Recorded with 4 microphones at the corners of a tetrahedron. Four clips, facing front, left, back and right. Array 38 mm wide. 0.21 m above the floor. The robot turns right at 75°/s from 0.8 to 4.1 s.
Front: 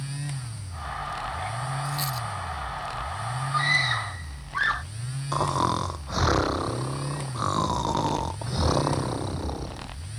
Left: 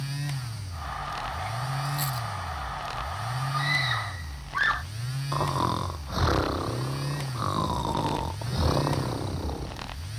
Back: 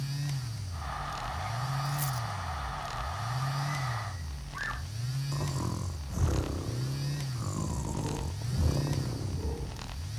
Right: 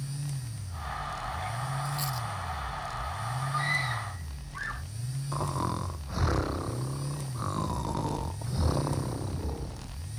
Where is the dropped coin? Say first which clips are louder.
Left 3 dB, front 4 dB; straight ahead; by 2.3 s 30° left.